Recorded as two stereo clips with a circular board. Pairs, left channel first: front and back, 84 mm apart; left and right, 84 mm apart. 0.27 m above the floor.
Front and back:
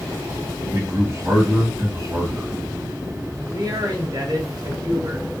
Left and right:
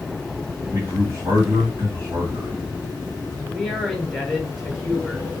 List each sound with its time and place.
0.7 s a man speaking: 135° right, 2 m
3.5 s a man speaking: straight behind, 1.5 m